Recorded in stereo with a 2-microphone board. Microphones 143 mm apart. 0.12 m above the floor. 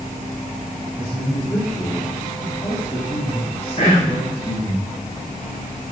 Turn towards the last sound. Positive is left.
turn(degrees=45)  # may be behind; listen again after turning